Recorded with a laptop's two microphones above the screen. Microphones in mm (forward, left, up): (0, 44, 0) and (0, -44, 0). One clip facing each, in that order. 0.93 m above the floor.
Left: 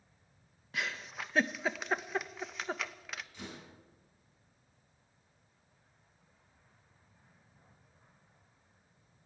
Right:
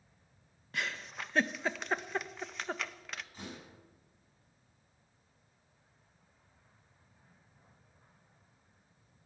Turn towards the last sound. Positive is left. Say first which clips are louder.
# even
turn(degrees=-40)  # may be behind; listen again after turning